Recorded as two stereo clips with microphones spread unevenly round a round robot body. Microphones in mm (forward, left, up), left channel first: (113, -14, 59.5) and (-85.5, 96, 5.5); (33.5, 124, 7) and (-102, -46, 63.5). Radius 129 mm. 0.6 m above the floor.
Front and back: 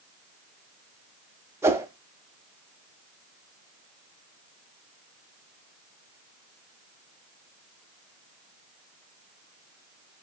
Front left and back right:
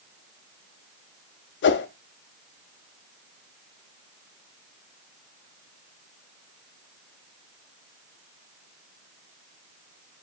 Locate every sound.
1.6 s a whoosh: 75° left, 0.5 m